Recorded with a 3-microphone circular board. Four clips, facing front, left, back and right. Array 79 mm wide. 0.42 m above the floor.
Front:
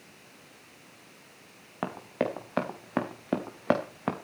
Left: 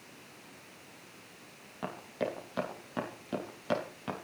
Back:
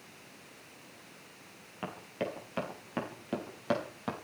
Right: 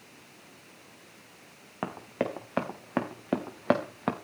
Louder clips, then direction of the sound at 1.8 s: Right 4 dB, front 7 dB; 35° right.